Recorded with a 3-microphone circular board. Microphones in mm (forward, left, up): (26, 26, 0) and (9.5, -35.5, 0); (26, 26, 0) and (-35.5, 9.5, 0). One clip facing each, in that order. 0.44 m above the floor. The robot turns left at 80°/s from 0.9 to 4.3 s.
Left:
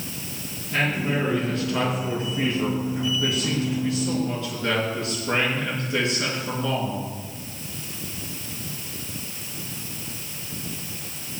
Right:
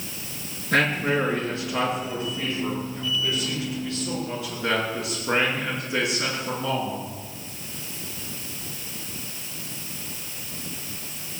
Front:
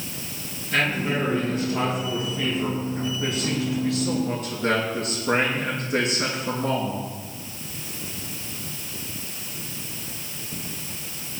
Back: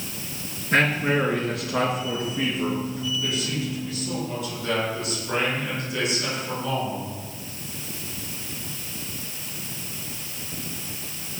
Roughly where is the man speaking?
Behind right.